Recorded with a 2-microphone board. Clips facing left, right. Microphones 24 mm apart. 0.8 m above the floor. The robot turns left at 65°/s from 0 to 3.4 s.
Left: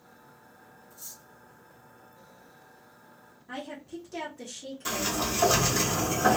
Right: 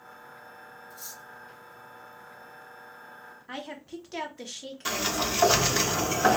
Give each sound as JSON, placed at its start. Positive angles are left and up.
{"t": 0.9, "sound": "cutlery clinking", "side_deg": -85, "distance_m": 0.9}
{"t": 3.5, "sound": "a woman speaking", "side_deg": -45, "distance_m": 0.9}
{"t": 4.8, "sound": "a sliding door", "side_deg": -30, "distance_m": 0.6}